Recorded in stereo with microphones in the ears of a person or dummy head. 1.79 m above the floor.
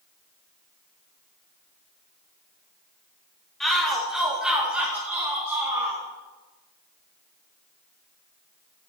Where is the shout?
Centre (ahead or behind), 3.5 m; by 6.0 s 20° right (ahead or behind), 4 m.